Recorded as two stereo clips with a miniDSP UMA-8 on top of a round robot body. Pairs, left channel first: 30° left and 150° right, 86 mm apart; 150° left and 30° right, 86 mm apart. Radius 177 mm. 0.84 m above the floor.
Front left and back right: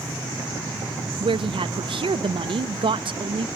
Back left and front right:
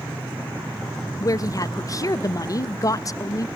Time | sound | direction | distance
1.2 | a woman speaking | 165° right | 0.8 m